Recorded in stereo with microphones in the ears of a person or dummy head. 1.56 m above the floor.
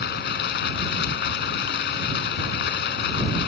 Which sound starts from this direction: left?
Running water, at 0.0 s.